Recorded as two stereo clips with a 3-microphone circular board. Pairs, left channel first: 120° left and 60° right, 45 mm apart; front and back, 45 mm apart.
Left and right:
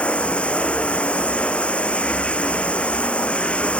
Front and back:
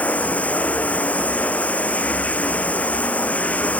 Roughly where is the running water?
Ahead left.